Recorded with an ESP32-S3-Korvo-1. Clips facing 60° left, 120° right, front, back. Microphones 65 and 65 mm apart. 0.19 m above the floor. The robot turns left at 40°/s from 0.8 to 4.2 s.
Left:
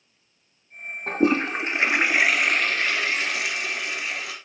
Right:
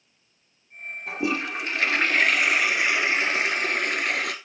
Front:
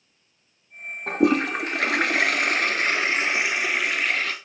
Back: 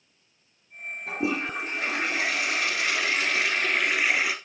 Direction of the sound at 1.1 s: 25° left.